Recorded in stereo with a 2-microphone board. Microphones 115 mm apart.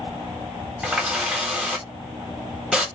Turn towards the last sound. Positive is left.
turn(degrees=-10)  # may be behind; listen again after turning